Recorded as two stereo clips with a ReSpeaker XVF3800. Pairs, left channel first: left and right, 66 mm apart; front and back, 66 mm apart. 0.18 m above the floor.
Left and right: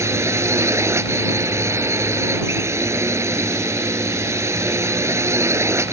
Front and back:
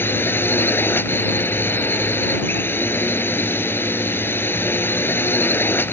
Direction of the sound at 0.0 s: 50° right.